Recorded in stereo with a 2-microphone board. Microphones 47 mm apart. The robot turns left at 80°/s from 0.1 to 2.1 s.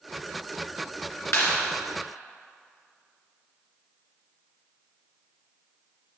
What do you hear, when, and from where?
1.3 s a clap: 65° left (ahead or behind), 2.5 m